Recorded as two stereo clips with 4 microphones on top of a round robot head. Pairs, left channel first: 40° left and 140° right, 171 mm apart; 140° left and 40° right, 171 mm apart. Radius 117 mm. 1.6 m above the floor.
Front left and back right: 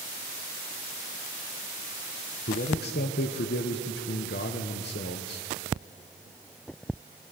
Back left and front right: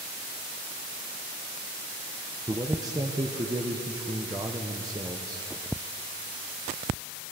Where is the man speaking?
25° left, 0.6 m.